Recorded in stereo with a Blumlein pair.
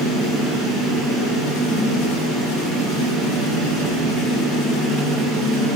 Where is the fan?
5° left, 1.8 m.